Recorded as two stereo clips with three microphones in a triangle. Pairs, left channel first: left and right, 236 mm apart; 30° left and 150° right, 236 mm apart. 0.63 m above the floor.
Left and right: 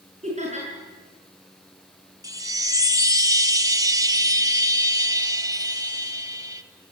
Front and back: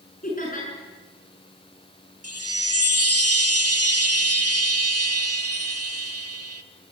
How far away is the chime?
About 1.3 m.